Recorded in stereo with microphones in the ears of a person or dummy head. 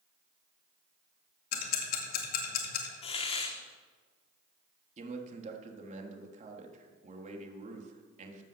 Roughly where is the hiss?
Left.